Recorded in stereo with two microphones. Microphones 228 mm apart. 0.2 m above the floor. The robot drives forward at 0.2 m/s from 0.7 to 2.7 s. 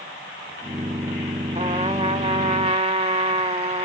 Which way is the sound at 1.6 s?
30° right (ahead or behind).